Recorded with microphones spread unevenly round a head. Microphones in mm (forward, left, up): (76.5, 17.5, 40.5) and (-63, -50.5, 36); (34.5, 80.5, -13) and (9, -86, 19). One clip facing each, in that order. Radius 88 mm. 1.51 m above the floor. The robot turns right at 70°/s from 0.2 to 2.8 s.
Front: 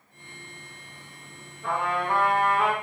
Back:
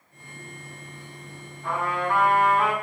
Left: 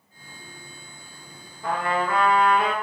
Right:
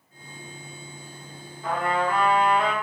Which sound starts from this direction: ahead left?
A trumpet, at 1.6 s.